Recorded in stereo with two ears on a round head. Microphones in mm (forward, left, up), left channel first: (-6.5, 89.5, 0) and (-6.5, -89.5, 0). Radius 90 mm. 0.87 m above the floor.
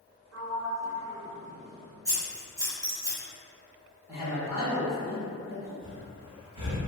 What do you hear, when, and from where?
0.3 s a sliding door: 70° right (ahead or behind), 0.7 m
2.0 s scissors: 20° right (ahead or behind), 2.0 m
4.1 s a man speaking: 15° right (ahead or behind), 1.0 m
5.8 s breathing: 25° right (ahead or behind), 0.9 m